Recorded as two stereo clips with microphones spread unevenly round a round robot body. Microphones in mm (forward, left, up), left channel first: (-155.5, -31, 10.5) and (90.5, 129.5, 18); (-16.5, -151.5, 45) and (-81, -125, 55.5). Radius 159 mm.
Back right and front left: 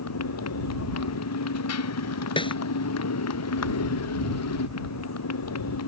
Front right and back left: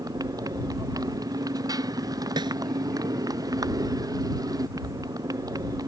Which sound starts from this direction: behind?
A motorcycle, at 0.0 s.